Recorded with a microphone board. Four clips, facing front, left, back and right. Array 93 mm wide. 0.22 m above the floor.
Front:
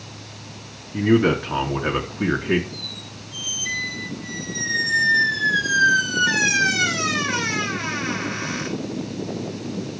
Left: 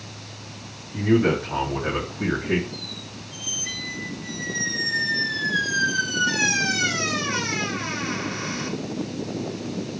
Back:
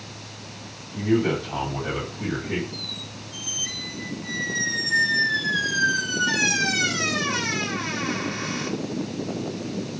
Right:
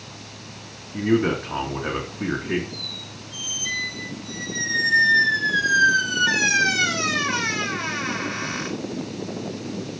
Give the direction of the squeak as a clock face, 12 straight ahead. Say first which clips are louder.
Left 1 dB, even; 2 o'clock.